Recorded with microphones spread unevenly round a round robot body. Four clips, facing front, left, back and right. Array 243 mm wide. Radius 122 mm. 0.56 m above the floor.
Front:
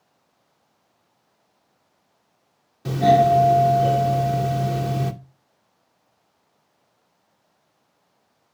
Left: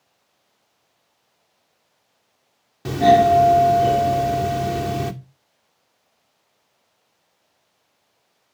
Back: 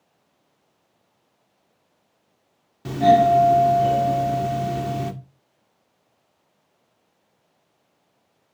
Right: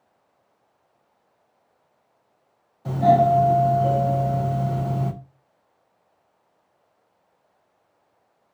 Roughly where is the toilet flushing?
No toilet flushing in this recording.